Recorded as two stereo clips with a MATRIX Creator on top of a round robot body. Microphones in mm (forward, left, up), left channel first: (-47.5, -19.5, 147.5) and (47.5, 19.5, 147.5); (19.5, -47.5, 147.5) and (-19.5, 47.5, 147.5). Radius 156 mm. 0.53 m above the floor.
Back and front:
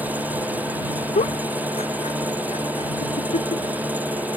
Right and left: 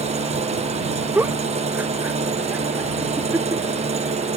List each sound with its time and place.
0.0 s an engine running: 95° left
1.1 s a giggle: 175° right